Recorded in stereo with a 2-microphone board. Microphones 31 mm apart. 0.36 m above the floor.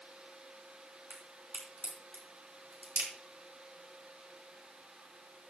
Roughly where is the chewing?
No chewing in this recording.